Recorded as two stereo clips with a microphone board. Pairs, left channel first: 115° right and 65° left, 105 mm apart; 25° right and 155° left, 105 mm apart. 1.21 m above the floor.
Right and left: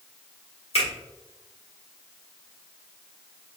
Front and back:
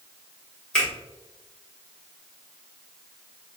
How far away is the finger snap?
About 1.8 m.